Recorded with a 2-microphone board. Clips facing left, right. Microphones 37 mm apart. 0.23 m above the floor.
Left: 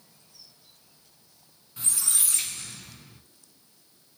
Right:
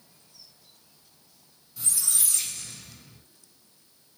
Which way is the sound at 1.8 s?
35° left (ahead or behind).